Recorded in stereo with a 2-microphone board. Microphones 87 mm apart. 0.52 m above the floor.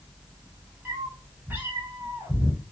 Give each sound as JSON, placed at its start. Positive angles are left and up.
{"t": 0.8, "sound": "a cat meowing", "side_deg": -20, "distance_m": 2.5}